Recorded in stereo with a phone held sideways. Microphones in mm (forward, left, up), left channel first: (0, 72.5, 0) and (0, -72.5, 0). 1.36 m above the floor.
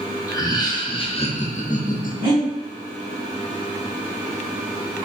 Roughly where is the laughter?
Left.